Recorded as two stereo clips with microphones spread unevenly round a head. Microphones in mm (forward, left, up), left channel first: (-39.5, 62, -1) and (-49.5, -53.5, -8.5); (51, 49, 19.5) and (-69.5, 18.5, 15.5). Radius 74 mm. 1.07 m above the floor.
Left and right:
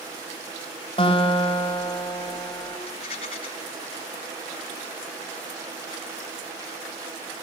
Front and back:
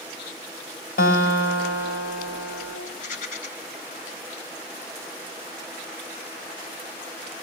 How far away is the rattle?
About 4.5 m.